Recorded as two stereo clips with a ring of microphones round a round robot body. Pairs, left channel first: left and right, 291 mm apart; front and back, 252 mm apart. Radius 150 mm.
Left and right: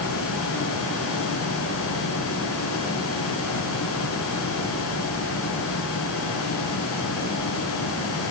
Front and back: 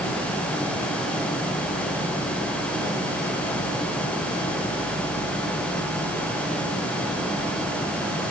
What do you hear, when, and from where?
Only background noise.